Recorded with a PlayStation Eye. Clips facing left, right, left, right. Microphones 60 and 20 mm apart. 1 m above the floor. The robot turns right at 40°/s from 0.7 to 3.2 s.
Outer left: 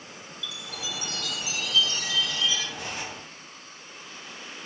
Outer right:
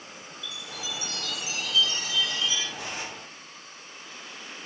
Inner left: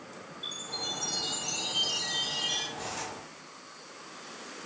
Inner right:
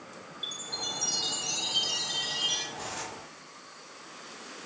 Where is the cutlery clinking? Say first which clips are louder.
Even, inner left 1 dB; 35° right (ahead or behind), 1.4 m; by 3.1 s 20° right (ahead or behind), 1.4 m.